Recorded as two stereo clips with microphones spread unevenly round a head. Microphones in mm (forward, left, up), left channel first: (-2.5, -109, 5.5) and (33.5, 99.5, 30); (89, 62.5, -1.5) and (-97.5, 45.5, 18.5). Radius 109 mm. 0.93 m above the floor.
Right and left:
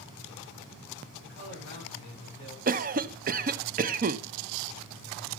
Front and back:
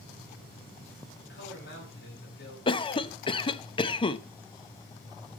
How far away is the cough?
About 0.6 m.